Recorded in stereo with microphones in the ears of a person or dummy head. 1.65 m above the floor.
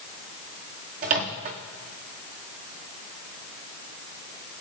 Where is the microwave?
35° right (ahead or behind), 0.8 m.